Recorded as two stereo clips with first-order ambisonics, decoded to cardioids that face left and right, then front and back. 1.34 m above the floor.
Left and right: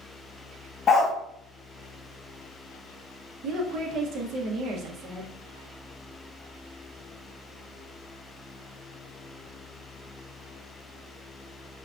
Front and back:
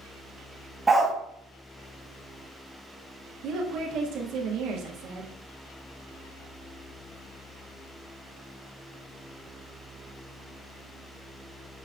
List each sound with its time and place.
0.9 s a dog barking: 110° left, 0.7 m
3.4 s a woman speaking: 135° right, 0.9 m